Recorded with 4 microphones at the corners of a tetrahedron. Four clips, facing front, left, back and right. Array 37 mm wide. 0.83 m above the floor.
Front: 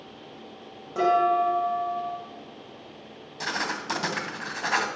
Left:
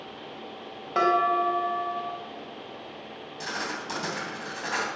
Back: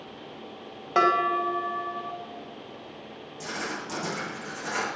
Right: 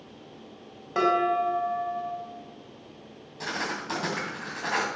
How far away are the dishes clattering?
About 3 m.